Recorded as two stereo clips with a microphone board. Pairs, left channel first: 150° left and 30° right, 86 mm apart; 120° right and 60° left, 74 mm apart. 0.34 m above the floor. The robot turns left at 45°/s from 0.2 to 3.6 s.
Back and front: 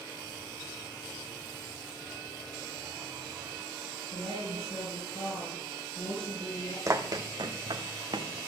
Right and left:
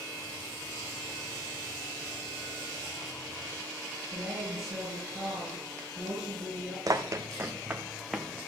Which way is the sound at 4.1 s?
145° left.